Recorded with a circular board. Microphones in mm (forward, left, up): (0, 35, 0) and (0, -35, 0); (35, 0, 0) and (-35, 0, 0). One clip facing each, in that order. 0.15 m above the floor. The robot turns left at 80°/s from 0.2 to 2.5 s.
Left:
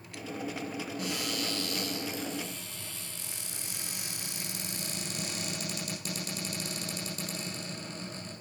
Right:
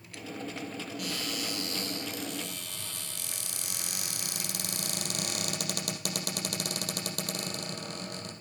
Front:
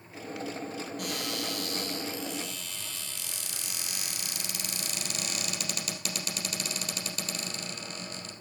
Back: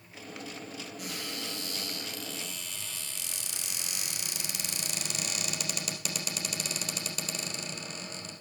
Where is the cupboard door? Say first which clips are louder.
Left 1 dB, front 4 dB; 30° left, 3.5 m; by 8.3 s 95° right, 3.5 m.